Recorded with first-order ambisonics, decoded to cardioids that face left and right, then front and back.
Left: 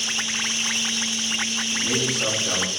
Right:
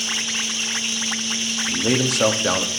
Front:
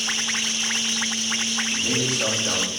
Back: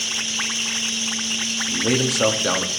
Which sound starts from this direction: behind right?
A man speaking, at 1.7 s.